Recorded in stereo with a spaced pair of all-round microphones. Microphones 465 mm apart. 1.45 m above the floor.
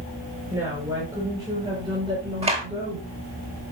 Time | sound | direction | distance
0.5 | a woman speaking | 5° right (ahead or behind) | 6 m
2.4 | a clap | 15° right (ahead or behind) | 8 m